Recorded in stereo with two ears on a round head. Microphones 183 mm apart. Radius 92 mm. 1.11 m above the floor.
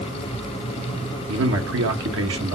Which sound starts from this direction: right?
A man speaking, at 1.3 s.